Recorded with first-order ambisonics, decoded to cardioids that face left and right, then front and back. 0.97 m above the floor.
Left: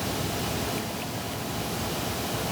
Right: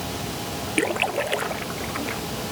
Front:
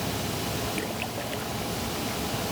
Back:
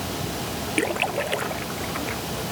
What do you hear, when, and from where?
0.8 s a splash: 125° right